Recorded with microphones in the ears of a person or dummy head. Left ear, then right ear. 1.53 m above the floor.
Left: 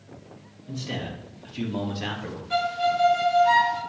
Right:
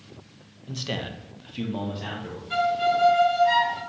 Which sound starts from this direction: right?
A man speaking, at 0.7 s.